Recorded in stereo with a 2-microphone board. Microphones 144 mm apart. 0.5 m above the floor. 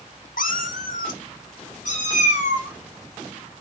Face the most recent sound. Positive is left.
turn(degrees=60)  # may be behind; listen again after turning